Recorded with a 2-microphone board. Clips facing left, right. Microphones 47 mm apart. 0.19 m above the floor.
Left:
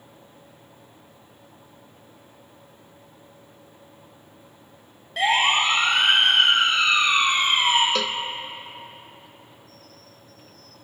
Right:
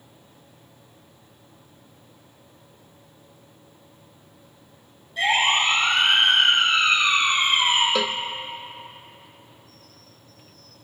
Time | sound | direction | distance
5.2 | a siren | 70° left (ahead or behind) | 7 m
8.0 | a cowbell | 10° right (ahead or behind) | 0.6 m